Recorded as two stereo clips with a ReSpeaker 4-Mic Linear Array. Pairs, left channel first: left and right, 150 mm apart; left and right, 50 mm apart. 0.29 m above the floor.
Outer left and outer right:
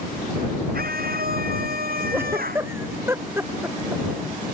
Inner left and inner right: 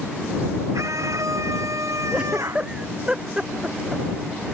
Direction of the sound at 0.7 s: 85° right.